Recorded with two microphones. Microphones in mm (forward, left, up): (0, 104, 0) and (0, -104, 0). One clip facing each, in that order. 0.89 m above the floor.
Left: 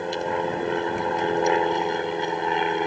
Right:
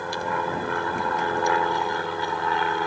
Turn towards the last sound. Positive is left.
turn(degrees=20)  # may be behind; listen again after turning